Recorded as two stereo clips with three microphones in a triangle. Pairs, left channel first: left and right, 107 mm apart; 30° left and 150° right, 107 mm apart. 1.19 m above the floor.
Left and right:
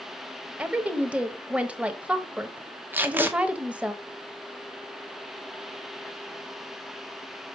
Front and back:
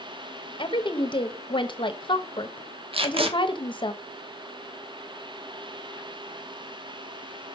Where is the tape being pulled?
160° right, 1.0 m.